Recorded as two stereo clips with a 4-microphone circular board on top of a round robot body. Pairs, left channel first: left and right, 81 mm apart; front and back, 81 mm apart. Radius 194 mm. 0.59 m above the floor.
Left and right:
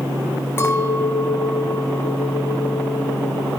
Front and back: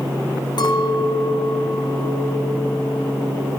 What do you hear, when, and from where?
0.6 s a clink: 30° left, 5.5 m